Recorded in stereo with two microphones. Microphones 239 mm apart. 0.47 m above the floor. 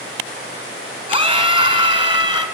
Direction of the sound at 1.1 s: 25° right (ahead or behind).